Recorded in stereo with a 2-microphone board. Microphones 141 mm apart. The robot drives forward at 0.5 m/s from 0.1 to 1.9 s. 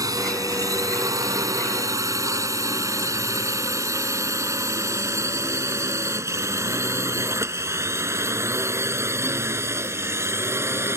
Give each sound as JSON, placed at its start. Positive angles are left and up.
{"t": 0.0, "sound": "a drone", "side_deg": -25}